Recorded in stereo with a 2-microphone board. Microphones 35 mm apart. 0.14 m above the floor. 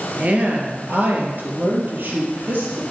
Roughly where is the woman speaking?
Right.